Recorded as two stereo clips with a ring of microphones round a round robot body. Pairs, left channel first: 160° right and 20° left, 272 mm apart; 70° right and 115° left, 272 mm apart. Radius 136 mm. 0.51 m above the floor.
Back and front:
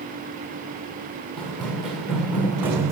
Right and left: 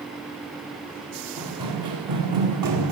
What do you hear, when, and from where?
1.4 s running footsteps: 115° left, 2.5 m; by 2.9 s 100° left, 1.2 m